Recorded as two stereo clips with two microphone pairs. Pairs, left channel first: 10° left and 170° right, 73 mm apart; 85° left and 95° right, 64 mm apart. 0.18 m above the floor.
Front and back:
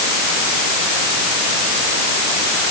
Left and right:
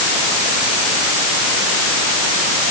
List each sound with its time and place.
Only background noise.